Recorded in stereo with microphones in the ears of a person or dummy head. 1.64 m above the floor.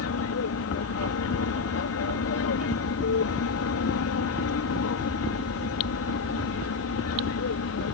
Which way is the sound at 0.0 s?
70° left (ahead or behind).